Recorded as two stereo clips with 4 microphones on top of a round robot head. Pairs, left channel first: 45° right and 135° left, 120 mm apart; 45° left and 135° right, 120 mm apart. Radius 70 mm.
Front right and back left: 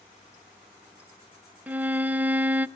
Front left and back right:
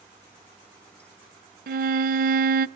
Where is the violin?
145° right, 0.6 m.